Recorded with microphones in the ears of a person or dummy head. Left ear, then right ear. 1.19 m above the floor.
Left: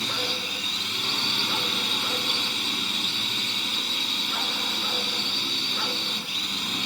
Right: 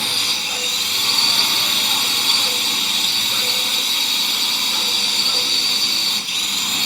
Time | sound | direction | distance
0.0 | a drone | 25° right (ahead or behind) | ?